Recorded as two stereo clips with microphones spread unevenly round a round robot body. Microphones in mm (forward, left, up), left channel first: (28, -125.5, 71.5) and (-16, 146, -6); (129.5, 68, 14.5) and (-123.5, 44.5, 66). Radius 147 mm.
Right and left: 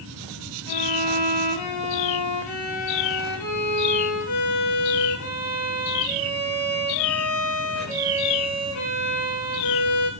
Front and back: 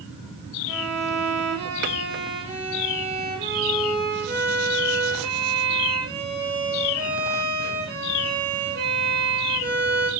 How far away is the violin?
About 9 m.